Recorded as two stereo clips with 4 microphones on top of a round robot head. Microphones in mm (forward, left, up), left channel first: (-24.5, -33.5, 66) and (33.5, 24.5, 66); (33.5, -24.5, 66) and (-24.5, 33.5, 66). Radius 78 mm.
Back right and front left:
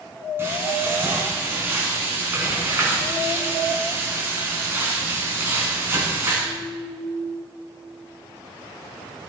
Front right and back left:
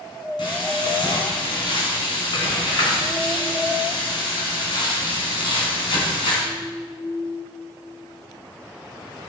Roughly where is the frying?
Ahead.